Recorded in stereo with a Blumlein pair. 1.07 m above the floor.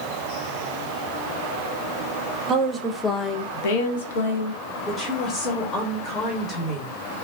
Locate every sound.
2.5 s a woman speaking: 30° right, 0.6 m; by 4.6 s 75° left, 1.2 m
4.9 s a woman speaking: 20° left, 0.9 m